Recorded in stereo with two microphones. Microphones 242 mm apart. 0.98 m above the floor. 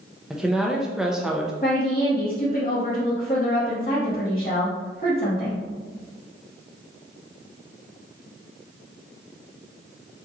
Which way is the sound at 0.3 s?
Centre (ahead or behind).